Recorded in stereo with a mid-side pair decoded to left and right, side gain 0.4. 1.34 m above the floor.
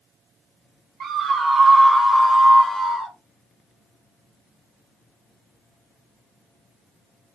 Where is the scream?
60° right, 0.7 m; by 3.1 s 50° left, 1.0 m.